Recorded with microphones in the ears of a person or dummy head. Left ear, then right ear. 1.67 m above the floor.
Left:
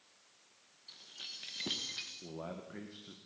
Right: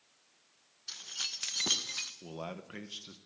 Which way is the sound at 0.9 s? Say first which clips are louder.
Right 9 dB; 55° right (ahead or behind).